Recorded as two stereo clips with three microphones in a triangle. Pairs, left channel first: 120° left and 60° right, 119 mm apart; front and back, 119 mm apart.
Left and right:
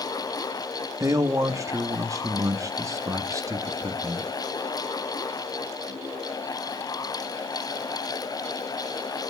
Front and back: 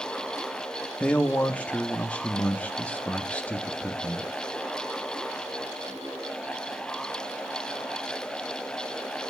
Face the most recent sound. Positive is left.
turn(degrees=-65)